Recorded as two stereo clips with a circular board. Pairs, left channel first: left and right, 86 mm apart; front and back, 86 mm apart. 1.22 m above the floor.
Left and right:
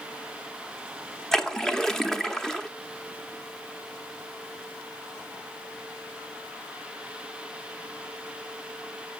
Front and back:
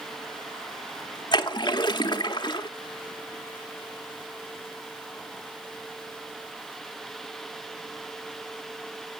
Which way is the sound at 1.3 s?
5° left.